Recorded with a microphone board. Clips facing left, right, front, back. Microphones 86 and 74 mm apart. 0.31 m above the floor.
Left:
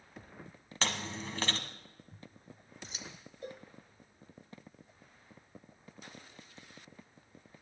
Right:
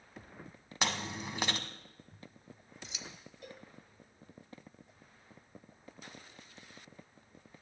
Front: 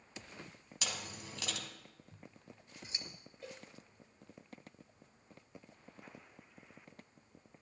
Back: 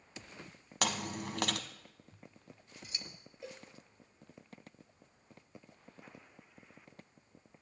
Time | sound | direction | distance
0.8 | chewing | 165° right | 1.3 m
2.1 | scissors | 55° left | 1.5 m
3.4 | a cowbell | 110° left | 1.2 m